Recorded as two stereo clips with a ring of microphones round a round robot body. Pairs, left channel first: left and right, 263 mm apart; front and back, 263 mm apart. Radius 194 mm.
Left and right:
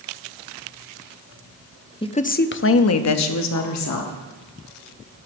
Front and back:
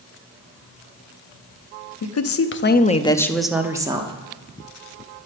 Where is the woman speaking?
20° left, 1.0 m; by 4.1 s 110° left, 1.5 m.